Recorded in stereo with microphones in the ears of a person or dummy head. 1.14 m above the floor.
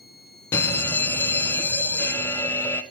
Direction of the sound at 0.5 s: 15° left (ahead or behind).